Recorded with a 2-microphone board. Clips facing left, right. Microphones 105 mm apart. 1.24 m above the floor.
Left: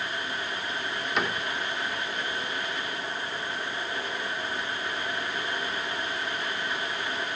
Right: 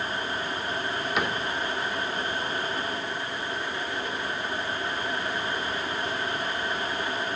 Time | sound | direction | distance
1.2 | a cupboard door | 5° right (ahead or behind) | 2 m